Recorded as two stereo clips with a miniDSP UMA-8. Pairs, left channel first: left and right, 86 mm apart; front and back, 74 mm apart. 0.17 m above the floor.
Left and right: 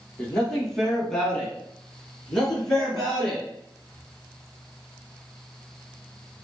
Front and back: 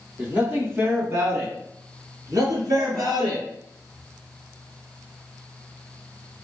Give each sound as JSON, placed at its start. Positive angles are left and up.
{"t": 0.2, "sound": "a man speaking", "azimuth_deg": 160, "distance_m": 1.3}